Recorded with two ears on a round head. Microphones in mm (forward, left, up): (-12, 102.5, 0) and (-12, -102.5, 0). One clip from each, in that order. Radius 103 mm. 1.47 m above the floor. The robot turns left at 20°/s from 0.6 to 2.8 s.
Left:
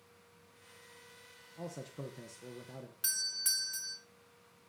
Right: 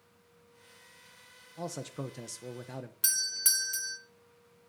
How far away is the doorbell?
About 0.8 m.